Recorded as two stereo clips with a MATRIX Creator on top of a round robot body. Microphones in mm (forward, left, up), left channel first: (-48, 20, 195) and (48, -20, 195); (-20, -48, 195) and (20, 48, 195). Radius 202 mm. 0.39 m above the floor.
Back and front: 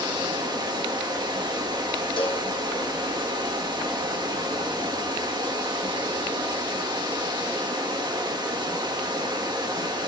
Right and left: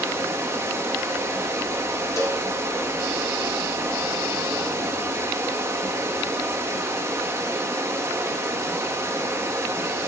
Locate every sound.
0.0 s running water: 10° left, 1.8 m
2.2 s a cowbell: 170° right, 1.3 m